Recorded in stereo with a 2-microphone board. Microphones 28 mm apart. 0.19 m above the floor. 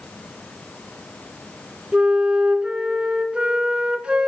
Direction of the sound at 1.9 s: 35° right (ahead or behind).